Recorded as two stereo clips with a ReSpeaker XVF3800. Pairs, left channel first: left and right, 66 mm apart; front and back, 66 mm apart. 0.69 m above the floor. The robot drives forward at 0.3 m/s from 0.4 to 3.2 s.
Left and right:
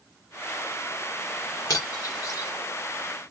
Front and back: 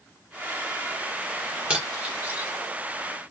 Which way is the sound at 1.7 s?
110° left.